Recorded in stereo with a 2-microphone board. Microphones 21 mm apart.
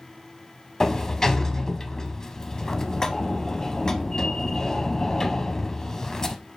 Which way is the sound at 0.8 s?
25° left (ahead or behind).